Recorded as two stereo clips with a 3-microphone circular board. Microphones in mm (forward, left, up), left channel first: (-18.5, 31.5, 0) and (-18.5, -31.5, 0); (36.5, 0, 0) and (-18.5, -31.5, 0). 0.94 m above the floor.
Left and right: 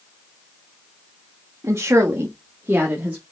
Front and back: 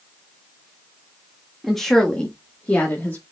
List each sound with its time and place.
1.6 s a woman speaking: 60° right, 1.6 m; by 3.2 s 20° right, 2 m